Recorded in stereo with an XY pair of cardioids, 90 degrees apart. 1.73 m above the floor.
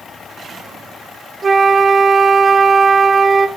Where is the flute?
35° right, 1.3 m.